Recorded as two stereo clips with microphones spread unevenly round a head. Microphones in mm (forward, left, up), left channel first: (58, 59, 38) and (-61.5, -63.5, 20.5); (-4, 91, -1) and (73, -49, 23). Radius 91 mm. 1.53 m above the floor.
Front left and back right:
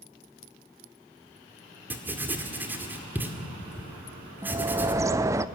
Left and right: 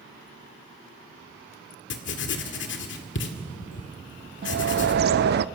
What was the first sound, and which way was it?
Writing, 145° left.